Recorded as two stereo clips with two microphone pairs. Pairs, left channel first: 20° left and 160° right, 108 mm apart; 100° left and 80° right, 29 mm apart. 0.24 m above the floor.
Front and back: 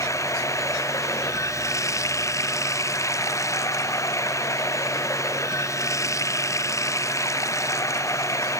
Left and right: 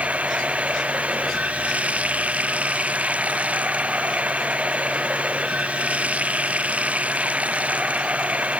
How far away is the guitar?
I don't hear a guitar.